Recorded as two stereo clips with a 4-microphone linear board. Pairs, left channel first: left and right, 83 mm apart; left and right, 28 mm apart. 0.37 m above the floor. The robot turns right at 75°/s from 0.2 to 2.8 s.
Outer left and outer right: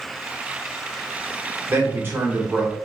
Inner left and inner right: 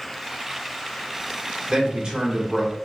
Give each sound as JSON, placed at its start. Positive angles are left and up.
{"t": 1.7, "sound": "a man speaking", "azimuth_deg": -95, "distance_m": 1.0}